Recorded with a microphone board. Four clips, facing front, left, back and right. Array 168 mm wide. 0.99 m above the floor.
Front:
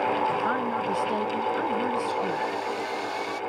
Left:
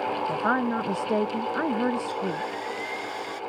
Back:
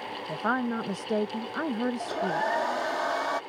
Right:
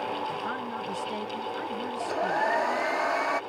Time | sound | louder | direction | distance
0.3 | a woman speaking | left 8 dB, front 3 dB | 110° left | ?
2.0 | a hair dryer | right 2 dB, front 1 dB | 125° right | ?